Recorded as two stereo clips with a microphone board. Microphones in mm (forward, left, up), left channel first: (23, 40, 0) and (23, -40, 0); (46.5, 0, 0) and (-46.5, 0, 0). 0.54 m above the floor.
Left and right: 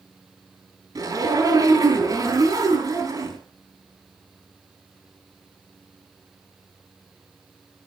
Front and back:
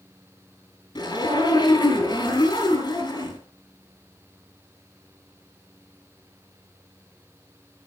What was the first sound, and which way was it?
A zipper, 50° right.